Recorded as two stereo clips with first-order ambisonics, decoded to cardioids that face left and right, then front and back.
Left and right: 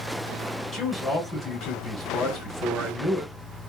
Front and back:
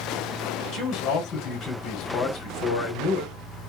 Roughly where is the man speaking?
Ahead left.